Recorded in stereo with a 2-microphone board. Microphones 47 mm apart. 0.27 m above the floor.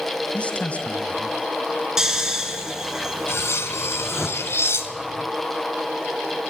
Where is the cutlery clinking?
65° left (ahead or behind), 1.7 m.